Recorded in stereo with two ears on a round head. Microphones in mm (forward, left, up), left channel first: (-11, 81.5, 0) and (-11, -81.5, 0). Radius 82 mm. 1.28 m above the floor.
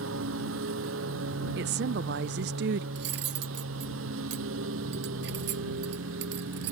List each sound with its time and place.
0.0 s a lawn mower: 75° right (ahead or behind)
1.6 s a woman speaking: 65° right (ahead or behind)
3.0 s cutlery clinking: 60° right (ahead or behind)